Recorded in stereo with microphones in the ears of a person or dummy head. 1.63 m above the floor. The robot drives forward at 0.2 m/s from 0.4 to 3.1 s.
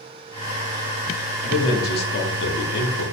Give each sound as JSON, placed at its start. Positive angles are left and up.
{"t": 1.4, "sound": "a man speaking", "side_deg": 50, "distance_m": 1.1}